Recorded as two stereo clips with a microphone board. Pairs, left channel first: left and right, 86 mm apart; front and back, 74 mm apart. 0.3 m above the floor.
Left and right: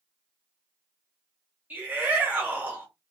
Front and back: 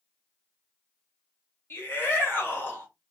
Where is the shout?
35° right, 1.2 m.